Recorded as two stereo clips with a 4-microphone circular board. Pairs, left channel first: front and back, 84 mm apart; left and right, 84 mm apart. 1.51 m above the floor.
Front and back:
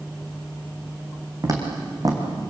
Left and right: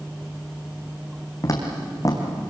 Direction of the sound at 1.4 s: 135° left.